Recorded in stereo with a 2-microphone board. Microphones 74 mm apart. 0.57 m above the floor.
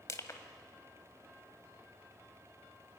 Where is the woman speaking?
I don't hear a woman speaking.